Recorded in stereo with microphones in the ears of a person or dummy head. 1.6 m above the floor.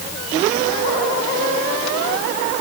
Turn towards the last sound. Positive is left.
No sound to turn to.